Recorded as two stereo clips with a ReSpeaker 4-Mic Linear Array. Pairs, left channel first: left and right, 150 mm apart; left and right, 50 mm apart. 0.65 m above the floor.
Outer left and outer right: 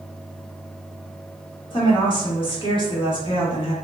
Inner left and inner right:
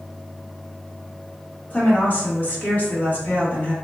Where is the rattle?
No rattle in this recording.